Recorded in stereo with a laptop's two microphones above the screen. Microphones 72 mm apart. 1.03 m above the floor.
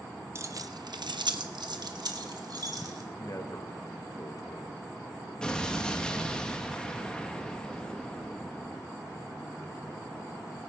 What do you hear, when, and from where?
0.3 s keys jangling: 35° right (ahead or behind), 0.6 m; by 3.0 s 60° right (ahead or behind), 1.9 m
3.1 s a man speaking: 50° left (ahead or behind), 1.4 m
5.4 s an explosion: 10° left (ahead or behind), 1.1 m